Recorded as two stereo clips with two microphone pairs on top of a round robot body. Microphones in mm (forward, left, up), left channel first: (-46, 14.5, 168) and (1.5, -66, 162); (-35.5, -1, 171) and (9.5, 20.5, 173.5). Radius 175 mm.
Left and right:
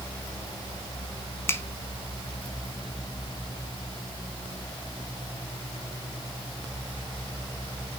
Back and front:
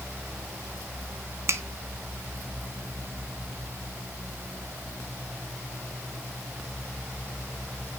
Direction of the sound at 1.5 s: 55° left.